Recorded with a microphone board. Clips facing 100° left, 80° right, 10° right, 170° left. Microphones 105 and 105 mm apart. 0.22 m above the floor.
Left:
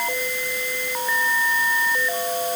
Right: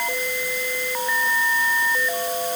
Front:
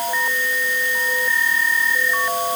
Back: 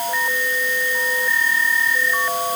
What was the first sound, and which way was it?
Only background noise.